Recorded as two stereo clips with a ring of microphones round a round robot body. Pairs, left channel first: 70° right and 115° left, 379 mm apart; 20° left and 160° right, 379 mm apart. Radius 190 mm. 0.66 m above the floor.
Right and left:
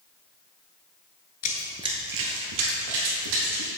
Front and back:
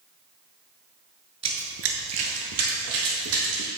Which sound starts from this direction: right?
Running footsteps, at 1.4 s.